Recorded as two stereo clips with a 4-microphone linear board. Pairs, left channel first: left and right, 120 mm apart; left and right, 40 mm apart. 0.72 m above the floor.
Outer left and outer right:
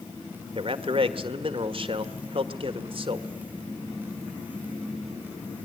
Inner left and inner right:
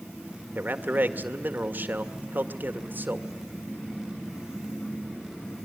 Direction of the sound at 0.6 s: 50° right (ahead or behind).